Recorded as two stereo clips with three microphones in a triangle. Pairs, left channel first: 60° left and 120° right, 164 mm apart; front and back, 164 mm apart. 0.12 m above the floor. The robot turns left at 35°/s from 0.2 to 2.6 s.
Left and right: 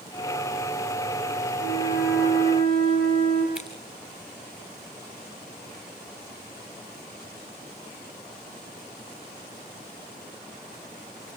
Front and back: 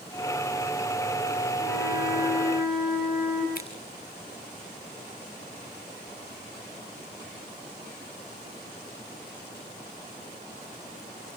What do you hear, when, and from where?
1.6 s a flute: 90° right, 6.5 m; by 3.5 s 125° right, 6.5 m
3.5 s scissors: 35° right, 6.5 m